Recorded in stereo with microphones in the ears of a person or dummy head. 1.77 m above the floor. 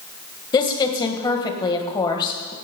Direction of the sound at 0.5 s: 20° left (ahead or behind).